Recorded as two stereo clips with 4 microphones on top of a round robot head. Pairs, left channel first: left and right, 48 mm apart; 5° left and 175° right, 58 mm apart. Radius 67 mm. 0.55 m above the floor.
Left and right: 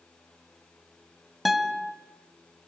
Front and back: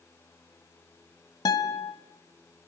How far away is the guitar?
About 1.8 m.